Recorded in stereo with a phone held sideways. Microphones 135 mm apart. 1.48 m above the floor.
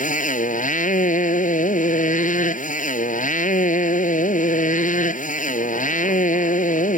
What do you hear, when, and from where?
0.0 s a motorcycle: 75° left (ahead or behind)